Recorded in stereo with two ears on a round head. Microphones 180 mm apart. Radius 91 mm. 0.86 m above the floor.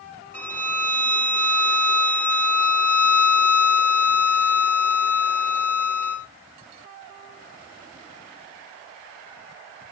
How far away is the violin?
About 5 m.